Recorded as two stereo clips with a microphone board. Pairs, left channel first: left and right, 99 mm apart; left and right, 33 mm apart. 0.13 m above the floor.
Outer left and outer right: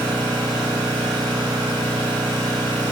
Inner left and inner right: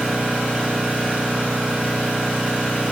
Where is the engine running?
50° right (ahead or behind), 1.5 m.